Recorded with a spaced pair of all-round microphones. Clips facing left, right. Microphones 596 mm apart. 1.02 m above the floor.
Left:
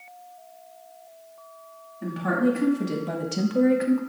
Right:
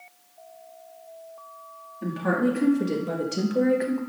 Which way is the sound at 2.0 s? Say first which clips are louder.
Left 1 dB; 5° left (ahead or behind).